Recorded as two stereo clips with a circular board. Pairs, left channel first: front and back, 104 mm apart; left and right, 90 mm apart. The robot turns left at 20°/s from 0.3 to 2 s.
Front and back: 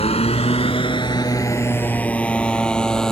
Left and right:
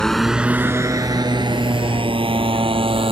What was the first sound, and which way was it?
A motorcycle, 5° left.